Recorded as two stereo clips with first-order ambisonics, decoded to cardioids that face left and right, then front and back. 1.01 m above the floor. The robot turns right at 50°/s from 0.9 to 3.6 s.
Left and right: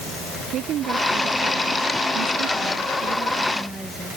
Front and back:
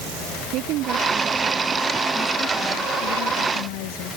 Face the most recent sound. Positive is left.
turn(degrees=-5)